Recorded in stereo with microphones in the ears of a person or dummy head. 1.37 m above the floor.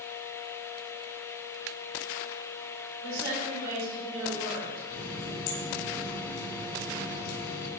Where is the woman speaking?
75° right (ahead or behind), 4 m; by 4.8 s 60° right (ahead or behind), 6 m.